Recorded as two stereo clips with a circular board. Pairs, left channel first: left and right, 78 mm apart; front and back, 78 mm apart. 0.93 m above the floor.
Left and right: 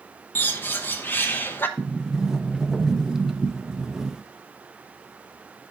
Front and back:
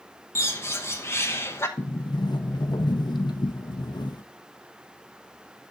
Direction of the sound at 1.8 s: 10° right.